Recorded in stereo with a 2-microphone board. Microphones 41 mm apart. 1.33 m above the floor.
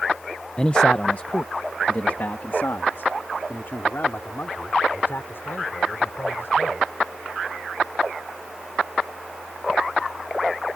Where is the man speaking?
25° left (ahead or behind); by 6.9 s 65° left (ahead or behind).